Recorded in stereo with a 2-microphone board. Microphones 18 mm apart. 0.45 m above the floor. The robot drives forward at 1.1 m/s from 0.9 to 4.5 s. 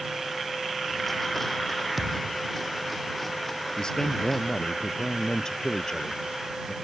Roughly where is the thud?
Centre.